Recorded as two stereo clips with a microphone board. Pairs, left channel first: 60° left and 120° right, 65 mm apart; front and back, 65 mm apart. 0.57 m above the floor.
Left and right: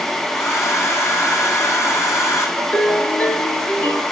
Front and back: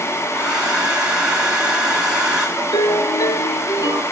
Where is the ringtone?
5° right, 6 m.